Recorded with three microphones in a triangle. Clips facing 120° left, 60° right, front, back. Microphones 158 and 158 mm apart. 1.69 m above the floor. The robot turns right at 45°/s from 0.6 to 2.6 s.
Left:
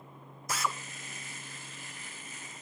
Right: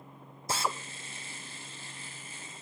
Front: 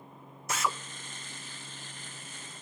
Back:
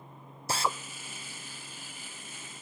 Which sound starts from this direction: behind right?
A drill, at 0.5 s.